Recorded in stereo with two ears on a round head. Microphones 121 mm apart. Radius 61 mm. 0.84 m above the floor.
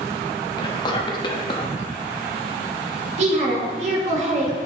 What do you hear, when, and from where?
0.6 s whispering: 35° left (ahead or behind), 1.0 m
3.2 s a woman speaking: 55° right (ahead or behind), 1.5 m